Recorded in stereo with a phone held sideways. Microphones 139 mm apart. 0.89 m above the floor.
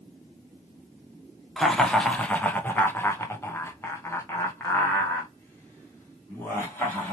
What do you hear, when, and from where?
1.6 s laughter: 5° left (ahead or behind), 1.0 m; by 7.1 s 15° left (ahead or behind), 2.5 m